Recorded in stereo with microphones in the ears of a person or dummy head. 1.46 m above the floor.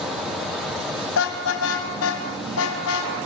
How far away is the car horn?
About 4.5 m.